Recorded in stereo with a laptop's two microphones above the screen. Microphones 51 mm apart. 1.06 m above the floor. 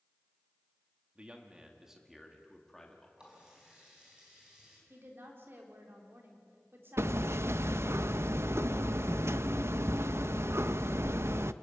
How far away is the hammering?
About 0.5 m.